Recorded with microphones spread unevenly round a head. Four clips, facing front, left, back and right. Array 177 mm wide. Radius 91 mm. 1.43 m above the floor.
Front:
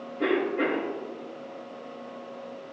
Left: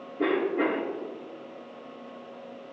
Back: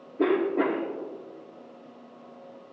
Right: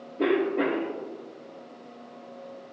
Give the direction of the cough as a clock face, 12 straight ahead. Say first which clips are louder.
Right 1 dB, back 2 dB; 6 o'clock.